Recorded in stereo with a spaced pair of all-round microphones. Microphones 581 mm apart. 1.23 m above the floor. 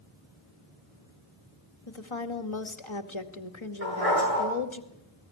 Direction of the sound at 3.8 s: 70° right (ahead or behind).